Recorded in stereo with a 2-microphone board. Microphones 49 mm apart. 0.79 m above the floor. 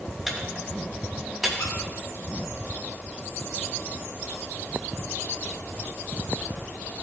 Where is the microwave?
5° right (ahead or behind), 1.6 m.